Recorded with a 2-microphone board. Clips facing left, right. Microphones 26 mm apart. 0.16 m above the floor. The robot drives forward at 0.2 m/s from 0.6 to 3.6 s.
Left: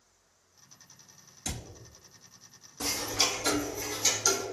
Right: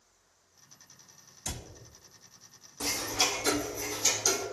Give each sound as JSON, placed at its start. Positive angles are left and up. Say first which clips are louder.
{"t": 1.4, "sound": "a cupboard door", "louder": "left 1 dB", "side_deg": 60, "distance_m": 0.7}
{"t": 2.8, "sound": "ticking", "louder": "even", "side_deg": 15, "distance_m": 0.9}